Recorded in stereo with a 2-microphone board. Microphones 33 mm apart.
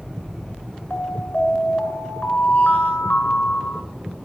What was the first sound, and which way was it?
An alarm, 45° left (ahead or behind).